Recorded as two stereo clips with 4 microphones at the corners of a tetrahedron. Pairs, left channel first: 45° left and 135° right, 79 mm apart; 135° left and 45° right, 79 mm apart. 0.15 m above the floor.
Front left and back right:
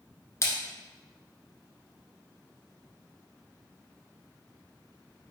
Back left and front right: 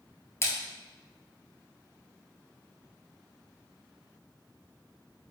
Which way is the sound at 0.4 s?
85° left.